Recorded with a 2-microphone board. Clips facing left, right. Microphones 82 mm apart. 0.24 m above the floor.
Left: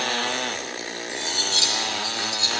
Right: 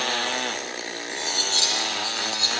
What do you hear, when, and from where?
1.1 s cutlery clinking: 40° right (ahead or behind), 4 m